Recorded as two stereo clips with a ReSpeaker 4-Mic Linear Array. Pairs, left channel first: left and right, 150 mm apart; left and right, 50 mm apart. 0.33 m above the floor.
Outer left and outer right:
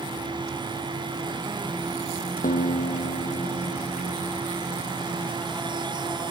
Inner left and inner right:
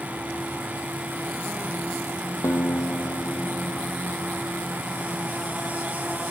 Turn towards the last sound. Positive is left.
turn(degrees=70)  # may be behind; listen again after turning